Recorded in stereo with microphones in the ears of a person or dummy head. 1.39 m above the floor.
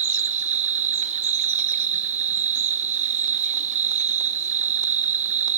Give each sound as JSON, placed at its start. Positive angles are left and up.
{"t": 0.0, "sound": "an insect", "side_deg": -40, "distance_m": 0.8}